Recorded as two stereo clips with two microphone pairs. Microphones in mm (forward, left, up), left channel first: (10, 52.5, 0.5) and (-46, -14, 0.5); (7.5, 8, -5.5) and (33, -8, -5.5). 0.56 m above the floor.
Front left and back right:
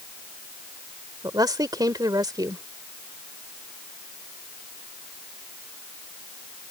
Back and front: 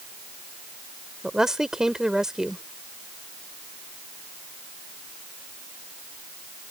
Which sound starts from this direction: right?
A woman speaking, at 1.2 s.